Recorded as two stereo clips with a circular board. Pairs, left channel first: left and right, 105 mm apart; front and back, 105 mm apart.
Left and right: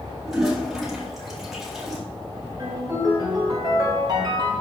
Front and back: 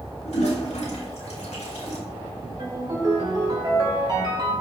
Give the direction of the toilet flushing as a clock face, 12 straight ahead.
12 o'clock.